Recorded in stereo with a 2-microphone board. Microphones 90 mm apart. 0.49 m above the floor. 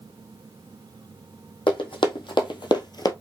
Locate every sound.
1.7 s running footsteps: 75° left (ahead or behind), 1.4 m; by 3.1 s 50° left (ahead or behind), 0.6 m